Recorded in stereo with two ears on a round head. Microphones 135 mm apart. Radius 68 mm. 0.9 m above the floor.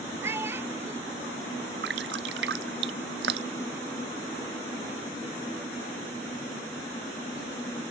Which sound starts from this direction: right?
Dripping, at 1.8 s.